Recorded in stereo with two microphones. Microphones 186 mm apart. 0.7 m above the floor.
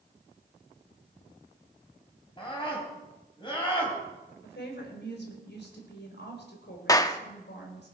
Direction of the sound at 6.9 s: 20° left (ahead or behind).